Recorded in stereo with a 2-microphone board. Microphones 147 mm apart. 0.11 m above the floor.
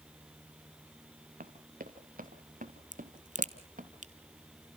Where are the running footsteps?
85° right, 2.5 m; by 3.9 s 70° right (ahead or behind), 4 m.